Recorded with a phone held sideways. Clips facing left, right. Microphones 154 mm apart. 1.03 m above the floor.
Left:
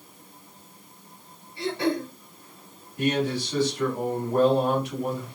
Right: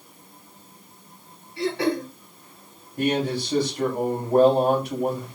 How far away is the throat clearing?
About 3 m.